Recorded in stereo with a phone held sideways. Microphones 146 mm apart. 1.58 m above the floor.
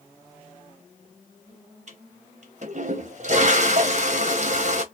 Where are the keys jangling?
No keys jangling in this recording.